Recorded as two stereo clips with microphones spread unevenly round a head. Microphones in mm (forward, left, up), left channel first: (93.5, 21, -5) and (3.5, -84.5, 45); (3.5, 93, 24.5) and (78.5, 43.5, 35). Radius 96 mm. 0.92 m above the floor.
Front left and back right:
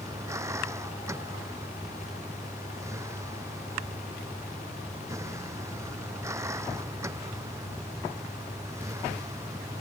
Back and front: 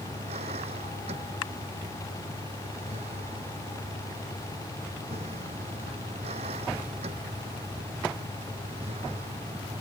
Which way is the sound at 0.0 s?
60° right.